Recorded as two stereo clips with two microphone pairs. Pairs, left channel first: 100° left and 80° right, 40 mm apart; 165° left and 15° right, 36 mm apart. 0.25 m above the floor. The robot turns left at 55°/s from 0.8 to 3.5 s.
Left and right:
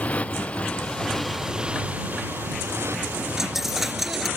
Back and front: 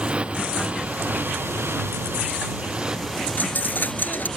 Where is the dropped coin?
160° right; by 4.3 s 165° right.